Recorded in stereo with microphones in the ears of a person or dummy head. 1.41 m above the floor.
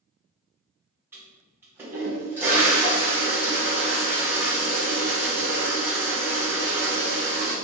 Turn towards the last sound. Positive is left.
turn(degrees=-5)  # may be behind; listen again after turning